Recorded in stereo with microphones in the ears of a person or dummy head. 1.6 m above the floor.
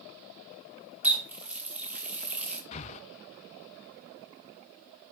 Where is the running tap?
Centre (ahead or behind), 2 m.